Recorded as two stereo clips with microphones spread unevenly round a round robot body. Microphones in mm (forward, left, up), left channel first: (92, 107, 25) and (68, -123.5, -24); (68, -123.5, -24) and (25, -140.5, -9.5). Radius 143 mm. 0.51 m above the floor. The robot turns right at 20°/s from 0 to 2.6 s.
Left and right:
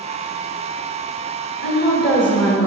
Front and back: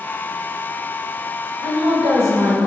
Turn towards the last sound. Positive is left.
turn(degrees=170)